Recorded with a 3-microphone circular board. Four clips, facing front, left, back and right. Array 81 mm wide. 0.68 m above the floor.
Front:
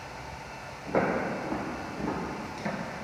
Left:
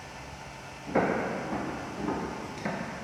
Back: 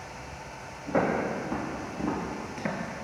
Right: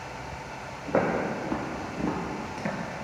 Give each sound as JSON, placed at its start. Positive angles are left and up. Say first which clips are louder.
{"t": 0.9, "sound": "footsteps", "louder": "right 1 dB, back 1 dB", "azimuth_deg": -90, "distance_m": 1.9}